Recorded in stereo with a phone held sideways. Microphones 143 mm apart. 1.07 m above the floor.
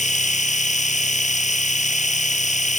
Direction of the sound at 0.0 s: 50° left (ahead or behind).